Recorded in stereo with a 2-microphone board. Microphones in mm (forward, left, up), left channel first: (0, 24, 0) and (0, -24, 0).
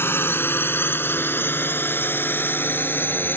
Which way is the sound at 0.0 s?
55° left (ahead or behind).